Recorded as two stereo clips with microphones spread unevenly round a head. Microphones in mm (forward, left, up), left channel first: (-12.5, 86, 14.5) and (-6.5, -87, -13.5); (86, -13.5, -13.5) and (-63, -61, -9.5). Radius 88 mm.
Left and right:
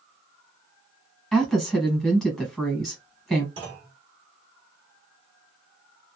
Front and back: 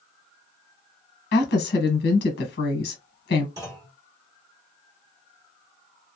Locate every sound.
1.3 s a woman speaking: straight ahead, 1.2 m
3.6 s a clunk: 135° right, 1.1 m